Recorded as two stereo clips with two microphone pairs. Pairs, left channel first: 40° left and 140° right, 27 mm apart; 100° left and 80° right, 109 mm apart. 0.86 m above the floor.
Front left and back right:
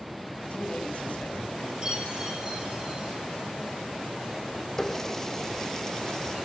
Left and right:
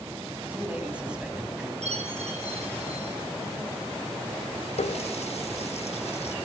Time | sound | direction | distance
0.4 | a man speaking | straight ahead | 6 m
1.8 | a chime | 80° right | 8.5 m
4.8 | a running tap | 110° left | 0.6 m